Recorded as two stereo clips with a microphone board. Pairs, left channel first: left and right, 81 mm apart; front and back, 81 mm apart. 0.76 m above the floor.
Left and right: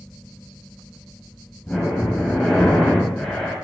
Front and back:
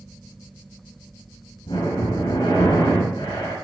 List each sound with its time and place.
1.7 s breathing: 10° left, 4.5 m